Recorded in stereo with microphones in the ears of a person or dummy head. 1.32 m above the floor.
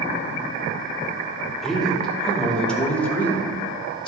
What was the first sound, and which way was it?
A man speaking, 5° left (ahead or behind).